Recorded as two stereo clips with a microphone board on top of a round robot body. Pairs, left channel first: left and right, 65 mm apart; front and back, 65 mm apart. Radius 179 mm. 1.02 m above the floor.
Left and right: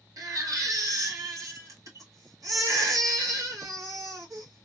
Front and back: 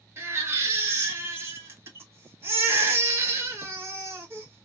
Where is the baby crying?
125° right, 1.1 m.